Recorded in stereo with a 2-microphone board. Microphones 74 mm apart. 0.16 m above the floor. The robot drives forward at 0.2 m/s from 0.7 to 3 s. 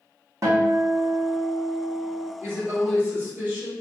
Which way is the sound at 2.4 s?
30° right (ahead or behind).